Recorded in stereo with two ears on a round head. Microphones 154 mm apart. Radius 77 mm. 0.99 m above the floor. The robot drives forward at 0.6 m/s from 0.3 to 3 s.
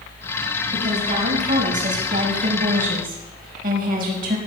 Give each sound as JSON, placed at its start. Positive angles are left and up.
{"t": 0.7, "sound": "a woman speaking", "side_deg": -45, "distance_m": 6.5}